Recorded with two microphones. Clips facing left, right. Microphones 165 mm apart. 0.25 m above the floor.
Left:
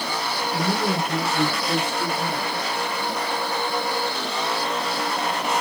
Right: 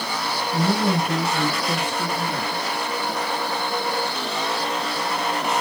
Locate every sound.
0.5 s a woman speaking: 35° right (ahead or behind), 1.1 m; by 2.8 s 60° right (ahead or behind), 2.5 m